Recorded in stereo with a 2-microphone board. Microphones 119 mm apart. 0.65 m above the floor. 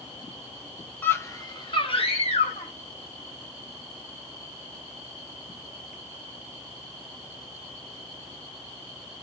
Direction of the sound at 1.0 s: 15° left (ahead or behind).